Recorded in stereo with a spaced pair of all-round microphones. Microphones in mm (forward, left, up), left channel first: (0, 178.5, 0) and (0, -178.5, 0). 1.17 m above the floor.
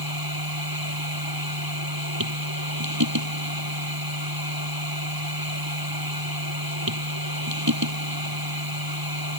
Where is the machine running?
75° right (ahead or behind).